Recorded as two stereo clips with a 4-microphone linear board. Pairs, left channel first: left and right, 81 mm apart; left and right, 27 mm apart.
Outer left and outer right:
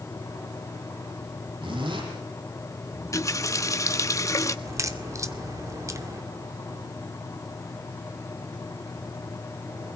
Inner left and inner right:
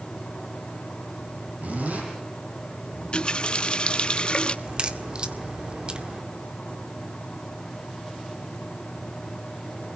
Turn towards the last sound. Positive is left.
turn(degrees=-40)  # may be behind; listen again after turning